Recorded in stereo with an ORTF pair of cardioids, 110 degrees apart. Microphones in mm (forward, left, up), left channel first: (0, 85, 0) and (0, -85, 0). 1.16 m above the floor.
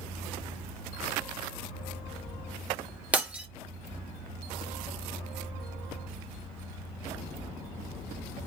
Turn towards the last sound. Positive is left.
turn(degrees=-10)